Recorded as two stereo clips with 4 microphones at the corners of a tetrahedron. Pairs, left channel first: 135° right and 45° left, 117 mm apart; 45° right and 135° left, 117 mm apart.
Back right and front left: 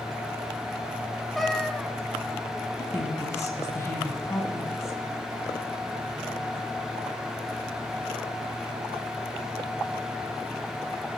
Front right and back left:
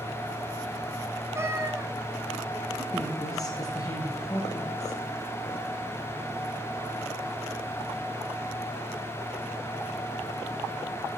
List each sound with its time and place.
1.4 s a cat meowing: 135° left, 0.8 m
2.8 s a woman speaking: 80° right, 2.0 m